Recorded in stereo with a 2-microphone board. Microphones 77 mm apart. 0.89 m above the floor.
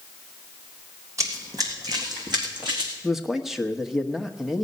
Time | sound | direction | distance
1.2 | running footsteps | 40° right (ahead or behind) | 3 m
3.0 | a man speaking | 5° right (ahead or behind) | 1.2 m